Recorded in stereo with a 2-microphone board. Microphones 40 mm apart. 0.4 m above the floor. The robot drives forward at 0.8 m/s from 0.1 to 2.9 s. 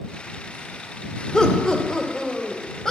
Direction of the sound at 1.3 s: 20° left (ahead or behind).